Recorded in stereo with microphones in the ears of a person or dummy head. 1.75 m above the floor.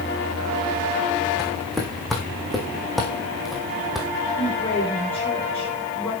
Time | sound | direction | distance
1.4 | footsteps | 5° left (ahead or behind) | 4 m
4.4 | a woman speaking | 15° left (ahead or behind) | 6.5 m